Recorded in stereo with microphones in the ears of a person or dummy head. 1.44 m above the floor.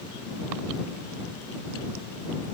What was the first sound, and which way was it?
Only background noise.